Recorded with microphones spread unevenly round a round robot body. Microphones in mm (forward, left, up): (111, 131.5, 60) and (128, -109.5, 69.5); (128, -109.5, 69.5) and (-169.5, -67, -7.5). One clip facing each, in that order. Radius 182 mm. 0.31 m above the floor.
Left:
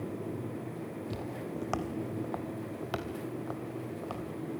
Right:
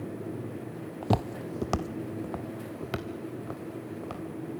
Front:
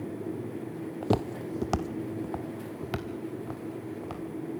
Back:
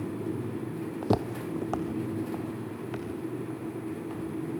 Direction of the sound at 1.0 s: 105° right.